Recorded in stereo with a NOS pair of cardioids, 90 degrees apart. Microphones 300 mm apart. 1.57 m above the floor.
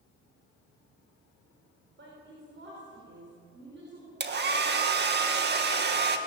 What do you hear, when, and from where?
2.0 s a woman speaking: 40° right, 6.5 m
4.2 s a hair dryer: 35° right, 2 m